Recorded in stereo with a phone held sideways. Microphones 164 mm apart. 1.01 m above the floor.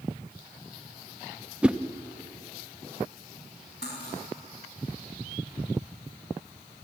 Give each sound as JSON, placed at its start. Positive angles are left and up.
{"t": 1.6, "sound": "a whoosh", "side_deg": -5, "distance_m": 0.6}
{"t": 3.8, "sound": "cutlery clinking", "side_deg": 90, "distance_m": 5.0}